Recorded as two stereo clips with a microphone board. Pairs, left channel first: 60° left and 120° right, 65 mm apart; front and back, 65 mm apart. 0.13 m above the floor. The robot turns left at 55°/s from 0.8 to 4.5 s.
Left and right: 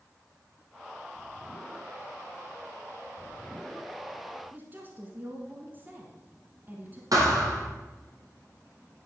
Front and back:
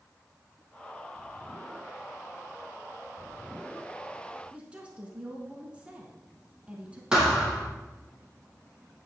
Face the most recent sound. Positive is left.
turn(degrees=-105)